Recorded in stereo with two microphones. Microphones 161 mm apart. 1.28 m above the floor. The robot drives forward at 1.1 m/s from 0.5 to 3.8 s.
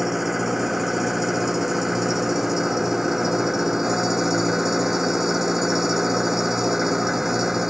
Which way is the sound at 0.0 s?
Centre (ahead or behind).